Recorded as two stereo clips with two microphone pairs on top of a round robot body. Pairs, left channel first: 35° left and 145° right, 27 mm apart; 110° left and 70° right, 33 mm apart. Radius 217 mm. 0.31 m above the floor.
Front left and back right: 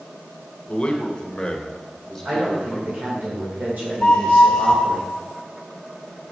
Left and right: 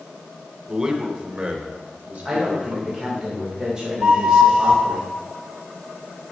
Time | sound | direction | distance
0.7 | a man speaking | 10° right | 2.5 m
2.2 | a woman speaking | 135° right | 3 m
4.0 | a flute | 25° right | 2.5 m